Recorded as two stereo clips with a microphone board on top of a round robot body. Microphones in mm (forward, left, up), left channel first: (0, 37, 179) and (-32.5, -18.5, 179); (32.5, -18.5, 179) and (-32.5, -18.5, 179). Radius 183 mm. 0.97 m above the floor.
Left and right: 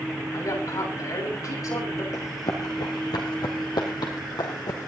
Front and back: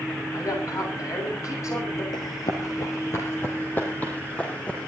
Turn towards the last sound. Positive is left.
turn(degrees=75)